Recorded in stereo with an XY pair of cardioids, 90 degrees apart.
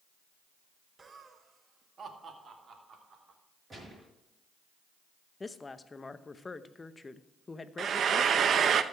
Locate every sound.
1.0 s laughter: 45° right, 1.0 m; by 3.4 s 55° right, 3.5 m
3.7 s a gunshot: 30° right, 5 m
5.4 s a woman speaking: 30° left, 0.7 m
7.8 s frying: 65° right, 0.6 m